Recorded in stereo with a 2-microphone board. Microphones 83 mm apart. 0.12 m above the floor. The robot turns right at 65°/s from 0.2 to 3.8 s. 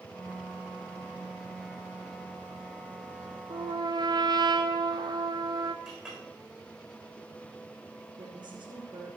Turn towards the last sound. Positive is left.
turn(degrees=-65)  # may be behind; listen again after turning